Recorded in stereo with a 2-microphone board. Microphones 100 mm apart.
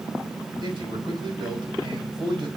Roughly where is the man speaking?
Right.